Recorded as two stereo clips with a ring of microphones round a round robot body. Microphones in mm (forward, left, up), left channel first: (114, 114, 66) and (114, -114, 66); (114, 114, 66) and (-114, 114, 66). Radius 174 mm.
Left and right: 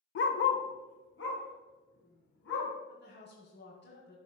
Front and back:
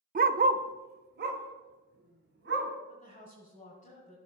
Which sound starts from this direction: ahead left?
A woman speaking, at 2.9 s.